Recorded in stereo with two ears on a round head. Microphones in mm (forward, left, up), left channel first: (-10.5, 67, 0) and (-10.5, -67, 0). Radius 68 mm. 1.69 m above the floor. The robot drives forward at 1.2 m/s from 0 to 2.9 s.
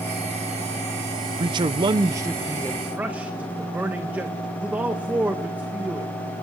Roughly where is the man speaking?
Right.